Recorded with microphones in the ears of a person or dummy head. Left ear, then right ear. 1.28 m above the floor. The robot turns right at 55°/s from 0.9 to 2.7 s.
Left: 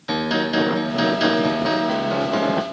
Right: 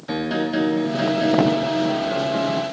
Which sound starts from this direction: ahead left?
A piano, at 0.1 s.